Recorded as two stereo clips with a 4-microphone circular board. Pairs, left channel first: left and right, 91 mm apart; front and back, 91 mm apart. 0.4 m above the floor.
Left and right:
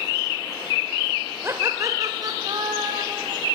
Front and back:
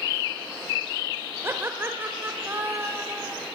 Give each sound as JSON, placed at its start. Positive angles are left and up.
{"t": 1.4, "sound": "laughter", "azimuth_deg": -135, "distance_m": 1.7}